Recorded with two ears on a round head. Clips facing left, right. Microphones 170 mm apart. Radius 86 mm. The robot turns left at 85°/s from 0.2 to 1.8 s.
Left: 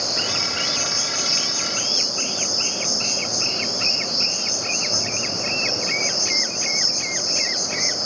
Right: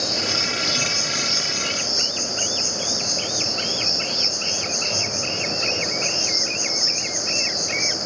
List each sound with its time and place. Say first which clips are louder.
0.0 s an insect: right 2 dB; 55° right, 8 m; by 8.1 s 170° left, 8 m